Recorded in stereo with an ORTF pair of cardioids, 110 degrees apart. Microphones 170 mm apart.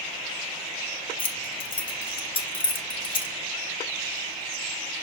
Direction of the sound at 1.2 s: 30° left.